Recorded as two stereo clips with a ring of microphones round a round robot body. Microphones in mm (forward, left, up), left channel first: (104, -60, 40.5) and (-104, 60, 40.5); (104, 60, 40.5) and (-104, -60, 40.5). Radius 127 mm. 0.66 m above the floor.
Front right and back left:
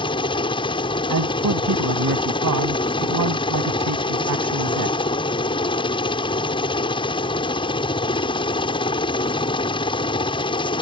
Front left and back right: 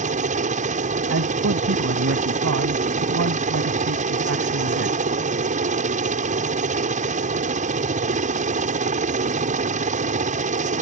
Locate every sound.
0.0 s a helicopter: 95° right
1.1 s a man speaking: 170° left